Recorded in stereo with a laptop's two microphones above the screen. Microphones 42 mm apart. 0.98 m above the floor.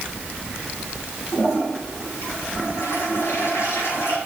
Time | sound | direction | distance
1.3 | a toilet flushing | 85° left | 8.5 m